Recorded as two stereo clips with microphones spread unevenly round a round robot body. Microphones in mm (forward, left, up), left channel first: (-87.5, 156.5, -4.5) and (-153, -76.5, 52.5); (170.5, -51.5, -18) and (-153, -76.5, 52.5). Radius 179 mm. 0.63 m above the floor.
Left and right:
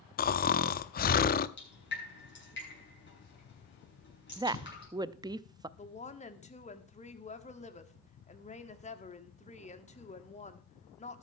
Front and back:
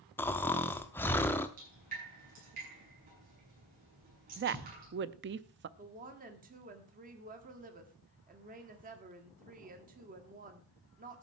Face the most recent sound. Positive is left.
turn(degrees=115)